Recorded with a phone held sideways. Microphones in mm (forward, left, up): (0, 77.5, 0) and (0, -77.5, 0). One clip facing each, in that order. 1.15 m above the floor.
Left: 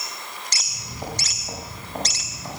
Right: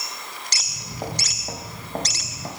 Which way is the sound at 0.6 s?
40° right (ahead or behind).